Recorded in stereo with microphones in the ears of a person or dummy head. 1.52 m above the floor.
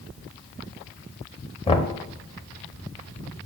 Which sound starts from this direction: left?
Knocking, at 1.7 s.